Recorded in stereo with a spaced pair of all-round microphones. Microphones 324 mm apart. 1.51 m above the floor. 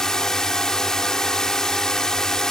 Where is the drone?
Centre (ahead or behind).